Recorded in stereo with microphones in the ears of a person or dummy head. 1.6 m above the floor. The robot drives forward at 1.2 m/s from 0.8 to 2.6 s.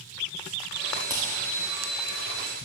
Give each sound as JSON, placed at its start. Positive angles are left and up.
{"t": 1.1, "sound": "hammering", "side_deg": -15, "distance_m": 2.5}